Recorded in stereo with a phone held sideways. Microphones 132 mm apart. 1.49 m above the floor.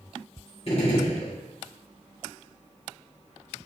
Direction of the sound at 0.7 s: 50° left (ahead or behind).